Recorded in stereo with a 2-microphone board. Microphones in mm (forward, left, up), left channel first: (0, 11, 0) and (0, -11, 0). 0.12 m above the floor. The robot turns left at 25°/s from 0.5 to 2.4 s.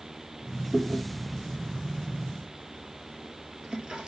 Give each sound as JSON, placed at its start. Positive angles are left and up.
{"t": 0.7, "sound": "chewing", "side_deg": 0, "distance_m": 2.5}